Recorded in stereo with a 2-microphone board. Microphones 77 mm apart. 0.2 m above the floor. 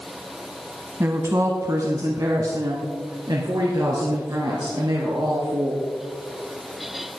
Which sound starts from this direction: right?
A woman speaking, at 1.0 s.